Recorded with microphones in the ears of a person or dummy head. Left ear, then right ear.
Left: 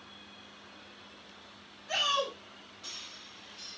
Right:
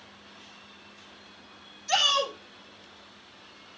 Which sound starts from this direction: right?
A shout, at 1.9 s.